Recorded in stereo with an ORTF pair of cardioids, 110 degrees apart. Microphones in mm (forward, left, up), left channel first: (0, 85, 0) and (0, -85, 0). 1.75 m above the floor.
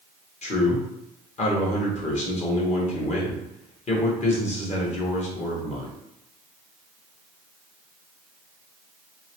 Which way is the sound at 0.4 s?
45° left.